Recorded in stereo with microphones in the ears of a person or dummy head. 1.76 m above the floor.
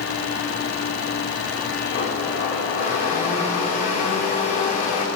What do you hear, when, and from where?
1.9 s a blender: 45° left (ahead or behind), 2.5 m